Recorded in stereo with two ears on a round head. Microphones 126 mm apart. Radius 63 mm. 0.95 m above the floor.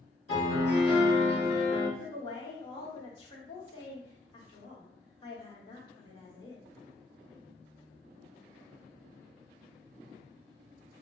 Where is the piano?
35° left (ahead or behind), 1.3 m.